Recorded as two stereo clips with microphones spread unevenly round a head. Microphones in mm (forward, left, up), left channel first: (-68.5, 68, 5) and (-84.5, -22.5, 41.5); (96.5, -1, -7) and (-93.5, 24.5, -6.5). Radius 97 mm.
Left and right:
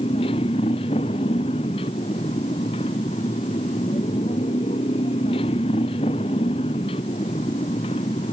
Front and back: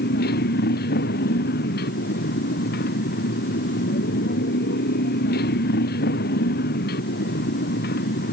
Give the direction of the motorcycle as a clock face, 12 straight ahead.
11 o'clock.